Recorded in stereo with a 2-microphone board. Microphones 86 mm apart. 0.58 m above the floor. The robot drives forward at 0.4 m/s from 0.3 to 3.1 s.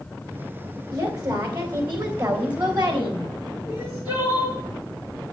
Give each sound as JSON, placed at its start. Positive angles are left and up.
{"t": 0.9, "sound": "a woman speaking", "side_deg": -50, "distance_m": 3.5}
{"t": 3.6, "sound": "crying", "side_deg": -25, "distance_m": 6.0}